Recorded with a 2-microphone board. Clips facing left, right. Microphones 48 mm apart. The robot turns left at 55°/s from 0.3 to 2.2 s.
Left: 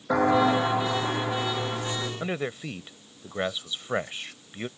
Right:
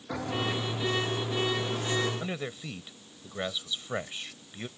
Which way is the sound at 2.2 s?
25° left (ahead or behind).